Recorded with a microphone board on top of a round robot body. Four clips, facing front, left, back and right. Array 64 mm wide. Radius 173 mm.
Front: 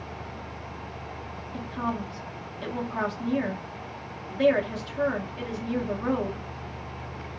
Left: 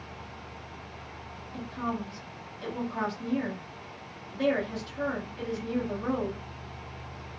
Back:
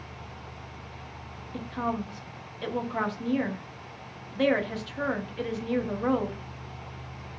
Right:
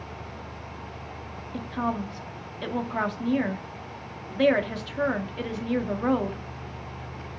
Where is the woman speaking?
105° right, 1.3 m.